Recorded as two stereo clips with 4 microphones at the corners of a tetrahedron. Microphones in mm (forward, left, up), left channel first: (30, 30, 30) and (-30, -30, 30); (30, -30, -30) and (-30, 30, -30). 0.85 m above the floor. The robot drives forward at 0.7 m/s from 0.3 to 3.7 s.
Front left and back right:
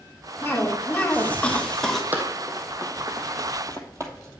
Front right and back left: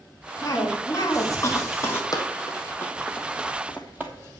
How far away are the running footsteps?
About 1.8 m.